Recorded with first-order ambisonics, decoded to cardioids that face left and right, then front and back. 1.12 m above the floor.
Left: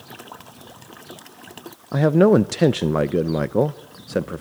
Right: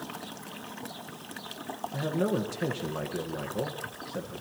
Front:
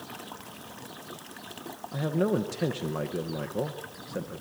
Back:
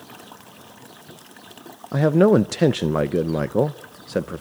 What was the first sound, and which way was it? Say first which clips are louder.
A man speaking: left 15 dB, back 12 dB; 130° left.